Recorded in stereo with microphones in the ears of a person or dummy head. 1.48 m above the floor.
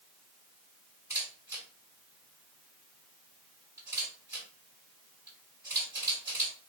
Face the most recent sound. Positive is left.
turn(degrees=-10)  # may be behind; listen again after turning